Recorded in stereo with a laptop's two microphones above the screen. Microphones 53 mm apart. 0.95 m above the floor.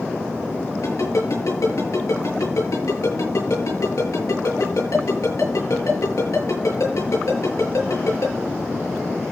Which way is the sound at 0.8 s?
75° left (ahead or behind).